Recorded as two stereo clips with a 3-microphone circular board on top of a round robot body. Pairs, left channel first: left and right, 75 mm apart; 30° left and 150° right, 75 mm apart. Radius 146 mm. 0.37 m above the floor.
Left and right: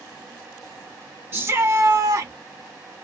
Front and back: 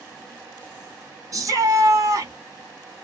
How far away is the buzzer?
No buzzer in this recording.